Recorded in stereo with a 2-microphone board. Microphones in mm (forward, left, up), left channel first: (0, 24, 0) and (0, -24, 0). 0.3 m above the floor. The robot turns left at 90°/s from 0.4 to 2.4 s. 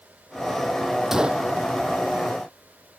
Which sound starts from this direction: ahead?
A gunshot, at 1.1 s.